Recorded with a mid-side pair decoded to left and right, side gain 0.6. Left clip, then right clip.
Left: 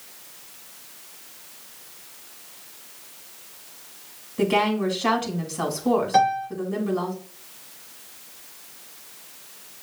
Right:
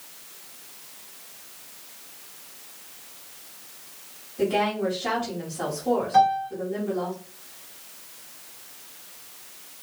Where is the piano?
40° left, 2.5 m.